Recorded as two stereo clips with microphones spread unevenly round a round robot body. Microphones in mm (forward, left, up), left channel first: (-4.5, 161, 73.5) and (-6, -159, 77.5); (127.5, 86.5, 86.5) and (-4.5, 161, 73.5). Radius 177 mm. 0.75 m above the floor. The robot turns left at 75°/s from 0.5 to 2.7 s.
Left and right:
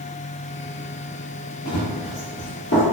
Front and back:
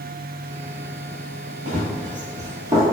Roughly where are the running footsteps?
Behind left.